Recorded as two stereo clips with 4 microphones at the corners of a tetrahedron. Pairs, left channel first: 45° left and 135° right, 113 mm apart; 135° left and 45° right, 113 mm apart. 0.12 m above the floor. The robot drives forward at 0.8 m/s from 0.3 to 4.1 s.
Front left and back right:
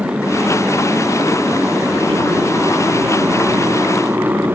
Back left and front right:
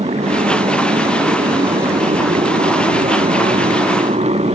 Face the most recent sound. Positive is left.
turn(degrees=-60)